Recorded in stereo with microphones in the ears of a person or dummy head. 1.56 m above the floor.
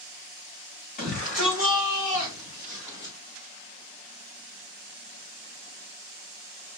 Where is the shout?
40° left (ahead or behind), 3.5 m; by 3.1 s 60° left (ahead or behind), 3 m.